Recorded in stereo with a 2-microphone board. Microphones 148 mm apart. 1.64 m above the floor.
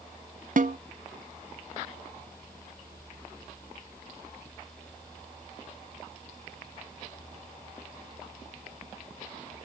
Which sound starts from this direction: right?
A snare drum, at 0.6 s.